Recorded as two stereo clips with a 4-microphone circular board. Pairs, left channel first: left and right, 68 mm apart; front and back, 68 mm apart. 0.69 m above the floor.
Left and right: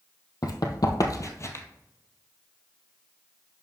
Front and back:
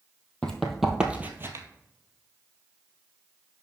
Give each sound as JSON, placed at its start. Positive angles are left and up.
{"t": 0.4, "sound": "running footsteps", "azimuth_deg": 75, "distance_m": 1.5}